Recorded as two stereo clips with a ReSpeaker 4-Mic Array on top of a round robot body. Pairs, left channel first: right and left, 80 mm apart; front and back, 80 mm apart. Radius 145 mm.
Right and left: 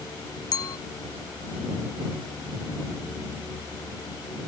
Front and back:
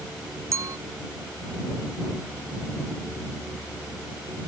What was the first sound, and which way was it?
A clink, 130° right.